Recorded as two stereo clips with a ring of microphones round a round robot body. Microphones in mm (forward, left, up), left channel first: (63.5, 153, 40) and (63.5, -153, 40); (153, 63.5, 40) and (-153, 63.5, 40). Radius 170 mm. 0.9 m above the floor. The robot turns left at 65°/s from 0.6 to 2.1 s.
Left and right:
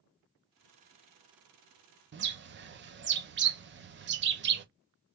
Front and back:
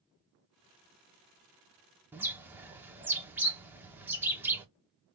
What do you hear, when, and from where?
2.1 s a bird: 100° right, 0.6 m